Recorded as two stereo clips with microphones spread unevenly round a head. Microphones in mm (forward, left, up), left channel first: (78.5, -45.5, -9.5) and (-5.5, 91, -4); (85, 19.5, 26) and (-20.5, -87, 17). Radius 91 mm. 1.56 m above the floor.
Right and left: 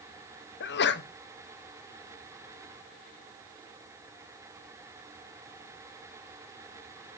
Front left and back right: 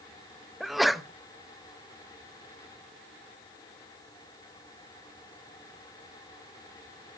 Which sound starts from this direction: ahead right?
A sneeze, at 0.6 s.